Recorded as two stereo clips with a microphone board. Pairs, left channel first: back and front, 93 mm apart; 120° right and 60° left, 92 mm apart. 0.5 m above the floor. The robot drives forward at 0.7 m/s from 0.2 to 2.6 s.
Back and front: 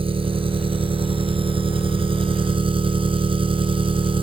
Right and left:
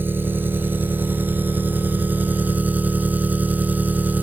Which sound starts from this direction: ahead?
An engine running, at 0.0 s.